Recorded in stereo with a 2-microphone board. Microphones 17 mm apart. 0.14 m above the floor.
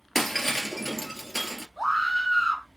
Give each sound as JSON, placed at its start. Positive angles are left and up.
{"t": 0.1, "sound": "breaking glass", "side_deg": 5, "distance_m": 1.4}
{"t": 1.8, "sound": "a scream", "side_deg": 10, "distance_m": 1.1}